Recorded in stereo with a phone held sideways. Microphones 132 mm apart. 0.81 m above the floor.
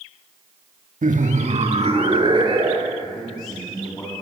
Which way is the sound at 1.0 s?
70° right (ahead or behind).